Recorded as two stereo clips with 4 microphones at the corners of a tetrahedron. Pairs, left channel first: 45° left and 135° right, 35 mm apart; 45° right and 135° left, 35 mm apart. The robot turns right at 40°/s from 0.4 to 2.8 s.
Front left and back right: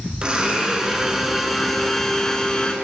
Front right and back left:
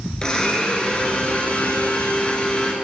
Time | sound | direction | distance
0.2 | a blender | 95° right | 0.9 m